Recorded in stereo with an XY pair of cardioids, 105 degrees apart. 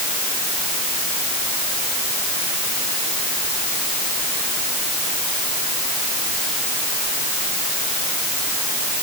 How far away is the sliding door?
I don't hear a sliding door.